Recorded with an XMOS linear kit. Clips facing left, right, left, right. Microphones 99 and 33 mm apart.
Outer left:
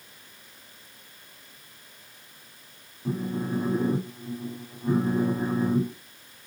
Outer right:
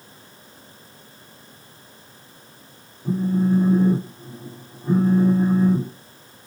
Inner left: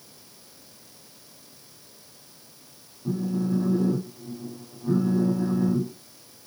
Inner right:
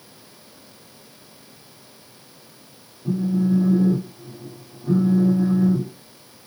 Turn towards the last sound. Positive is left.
turn(degrees=0)  # may be behind; listen again after turning